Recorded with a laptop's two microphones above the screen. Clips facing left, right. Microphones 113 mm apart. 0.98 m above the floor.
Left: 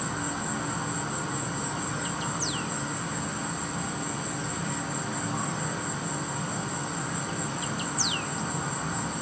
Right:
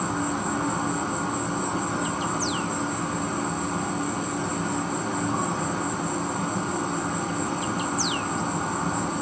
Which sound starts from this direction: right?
An insect, at 0.0 s.